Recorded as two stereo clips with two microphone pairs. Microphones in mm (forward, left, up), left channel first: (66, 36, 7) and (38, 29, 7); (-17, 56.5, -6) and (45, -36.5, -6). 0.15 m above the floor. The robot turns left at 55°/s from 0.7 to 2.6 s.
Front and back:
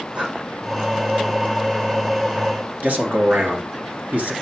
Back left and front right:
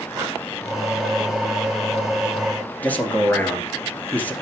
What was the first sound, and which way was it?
Breathing, 110° right.